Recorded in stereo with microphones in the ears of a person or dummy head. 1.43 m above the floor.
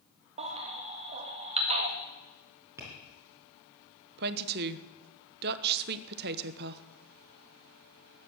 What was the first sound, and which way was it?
A baby crying, 35° right (ahead or behind).